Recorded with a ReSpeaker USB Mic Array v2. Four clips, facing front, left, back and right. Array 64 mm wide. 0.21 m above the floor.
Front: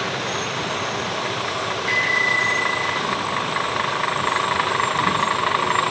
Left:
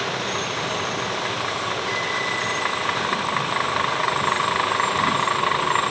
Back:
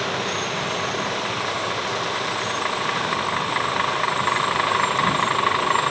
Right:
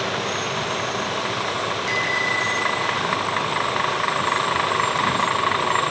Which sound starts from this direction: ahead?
A bicycle bell, at 1.9 s.